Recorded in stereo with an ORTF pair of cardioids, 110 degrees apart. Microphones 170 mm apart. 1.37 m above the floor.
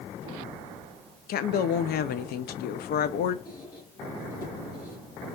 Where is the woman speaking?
65° left, 0.7 m.